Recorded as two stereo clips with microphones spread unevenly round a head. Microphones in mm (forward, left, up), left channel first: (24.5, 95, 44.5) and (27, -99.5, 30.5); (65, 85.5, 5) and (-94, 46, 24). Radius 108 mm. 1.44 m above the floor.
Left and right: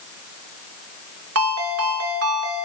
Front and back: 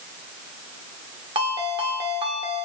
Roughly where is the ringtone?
Right.